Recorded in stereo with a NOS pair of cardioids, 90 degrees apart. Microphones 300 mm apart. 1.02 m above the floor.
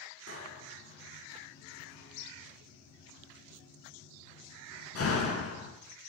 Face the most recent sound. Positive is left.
turn(degrees=50)